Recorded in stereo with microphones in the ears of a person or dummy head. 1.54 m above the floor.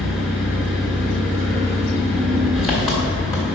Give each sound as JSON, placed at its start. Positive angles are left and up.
{"t": 0.0, "sound": "an engine running", "side_deg": 0, "distance_m": 1.6}